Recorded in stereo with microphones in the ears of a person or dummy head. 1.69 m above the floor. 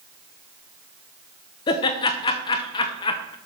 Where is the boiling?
No boiling in this recording.